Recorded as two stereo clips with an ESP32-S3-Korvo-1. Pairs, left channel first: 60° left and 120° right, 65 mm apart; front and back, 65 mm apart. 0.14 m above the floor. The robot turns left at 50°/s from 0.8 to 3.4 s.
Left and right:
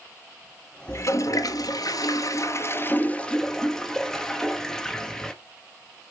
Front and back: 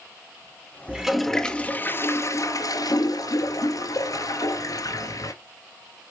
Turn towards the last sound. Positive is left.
turn(degrees=-25)